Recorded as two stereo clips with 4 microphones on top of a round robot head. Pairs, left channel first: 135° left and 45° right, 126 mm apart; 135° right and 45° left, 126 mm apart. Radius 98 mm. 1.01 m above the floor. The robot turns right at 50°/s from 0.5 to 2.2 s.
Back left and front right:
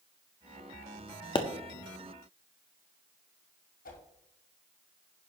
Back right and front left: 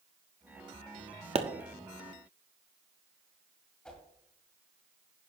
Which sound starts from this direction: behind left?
A whoosh, at 3.9 s.